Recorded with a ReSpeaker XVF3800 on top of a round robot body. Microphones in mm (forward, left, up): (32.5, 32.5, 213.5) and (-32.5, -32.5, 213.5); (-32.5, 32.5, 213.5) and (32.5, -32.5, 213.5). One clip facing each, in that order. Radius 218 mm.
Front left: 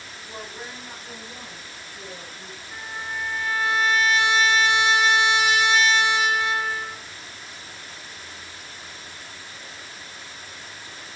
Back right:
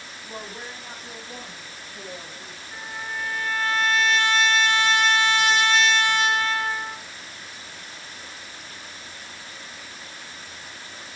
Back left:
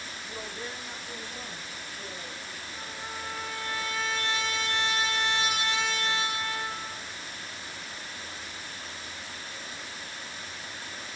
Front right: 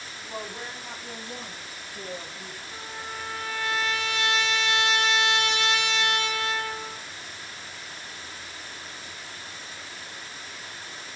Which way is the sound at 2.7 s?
40° right.